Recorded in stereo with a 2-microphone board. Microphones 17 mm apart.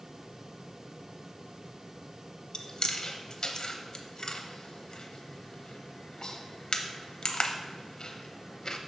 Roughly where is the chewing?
Left.